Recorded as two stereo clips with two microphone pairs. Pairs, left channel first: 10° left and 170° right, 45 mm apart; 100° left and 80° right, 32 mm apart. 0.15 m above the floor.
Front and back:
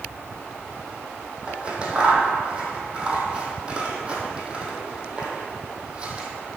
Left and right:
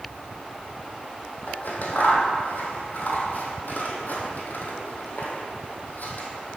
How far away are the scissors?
About 1.4 m.